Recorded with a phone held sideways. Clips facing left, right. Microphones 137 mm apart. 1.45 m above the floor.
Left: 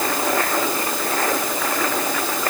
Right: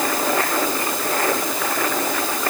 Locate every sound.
Only background noise.